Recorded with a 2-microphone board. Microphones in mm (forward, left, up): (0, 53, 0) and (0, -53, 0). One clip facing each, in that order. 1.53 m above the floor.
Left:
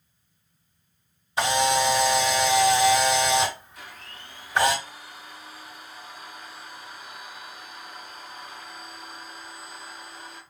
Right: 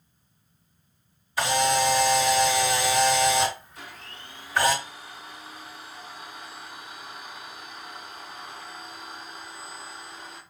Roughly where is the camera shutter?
Left.